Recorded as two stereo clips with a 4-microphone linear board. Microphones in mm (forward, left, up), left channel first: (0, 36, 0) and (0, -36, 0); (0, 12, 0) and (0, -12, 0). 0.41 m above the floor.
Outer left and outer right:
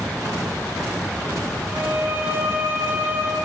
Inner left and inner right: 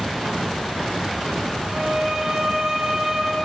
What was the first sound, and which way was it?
A violin, 25° right (ahead or behind).